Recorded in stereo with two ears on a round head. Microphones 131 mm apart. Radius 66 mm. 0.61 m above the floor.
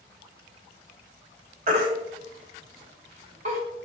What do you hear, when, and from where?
1.7 s a baby crying: 50° right (ahead or behind), 1.4 m